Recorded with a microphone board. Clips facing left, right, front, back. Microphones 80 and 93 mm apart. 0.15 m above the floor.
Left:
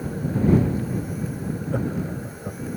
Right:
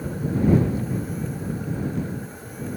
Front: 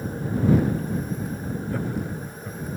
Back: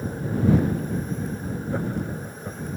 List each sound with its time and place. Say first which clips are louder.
1.7 s laughter: left 3 dB, back 2 dB; 110° left